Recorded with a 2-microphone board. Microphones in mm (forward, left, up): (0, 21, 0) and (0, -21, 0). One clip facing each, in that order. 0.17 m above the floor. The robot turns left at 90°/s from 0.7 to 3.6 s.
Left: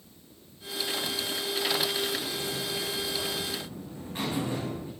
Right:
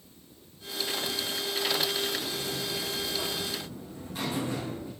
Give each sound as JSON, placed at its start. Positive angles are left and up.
{"t": 2.2, "sound": "a buzzer", "azimuth_deg": -85, "distance_m": 7.0}